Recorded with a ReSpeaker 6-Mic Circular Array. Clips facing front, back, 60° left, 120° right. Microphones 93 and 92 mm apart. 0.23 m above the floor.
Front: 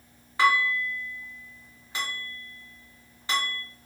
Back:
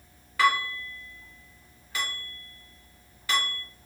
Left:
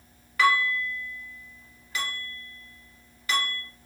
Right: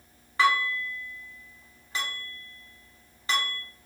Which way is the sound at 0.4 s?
60° right.